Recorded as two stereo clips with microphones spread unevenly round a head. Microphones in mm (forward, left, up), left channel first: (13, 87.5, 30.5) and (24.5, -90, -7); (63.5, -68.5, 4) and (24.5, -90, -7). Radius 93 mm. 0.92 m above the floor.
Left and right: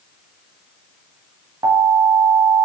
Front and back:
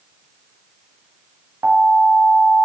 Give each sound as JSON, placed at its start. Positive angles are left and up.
{"t": 1.6, "sound": "an alarm", "azimuth_deg": -150, "distance_m": 1.6}